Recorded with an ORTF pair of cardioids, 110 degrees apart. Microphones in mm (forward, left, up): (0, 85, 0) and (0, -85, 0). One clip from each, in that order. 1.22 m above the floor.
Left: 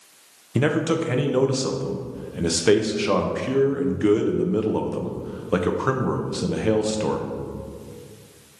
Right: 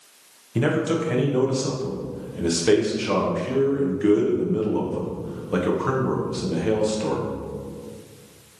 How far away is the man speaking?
About 0.7 m.